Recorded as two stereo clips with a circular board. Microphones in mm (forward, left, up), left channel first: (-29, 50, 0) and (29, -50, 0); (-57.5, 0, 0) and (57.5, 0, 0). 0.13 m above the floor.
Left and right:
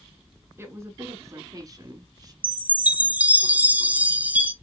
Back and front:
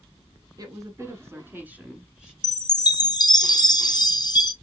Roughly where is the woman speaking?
Ahead.